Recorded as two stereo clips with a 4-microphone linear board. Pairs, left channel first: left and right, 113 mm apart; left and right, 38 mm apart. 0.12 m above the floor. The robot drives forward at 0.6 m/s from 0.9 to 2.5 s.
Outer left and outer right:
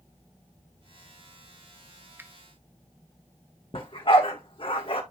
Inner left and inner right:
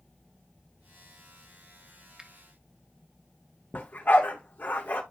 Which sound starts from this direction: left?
A dog barking, at 3.7 s.